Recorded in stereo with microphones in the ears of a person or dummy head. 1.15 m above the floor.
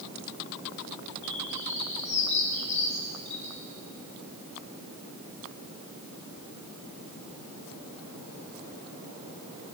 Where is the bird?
35° left (ahead or behind), 3 m.